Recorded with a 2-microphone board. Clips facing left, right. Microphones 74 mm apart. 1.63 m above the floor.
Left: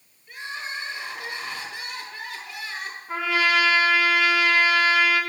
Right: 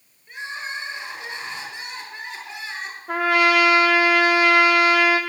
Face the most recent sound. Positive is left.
turn(degrees=-65)  # may be behind; listen again after turning